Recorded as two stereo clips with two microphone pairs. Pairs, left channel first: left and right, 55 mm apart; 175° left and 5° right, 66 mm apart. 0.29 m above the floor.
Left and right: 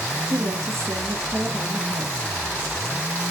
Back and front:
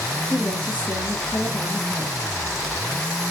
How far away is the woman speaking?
About 3.5 m.